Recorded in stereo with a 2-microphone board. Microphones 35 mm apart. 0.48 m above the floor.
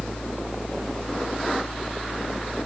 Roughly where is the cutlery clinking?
I don't hear cutlery clinking.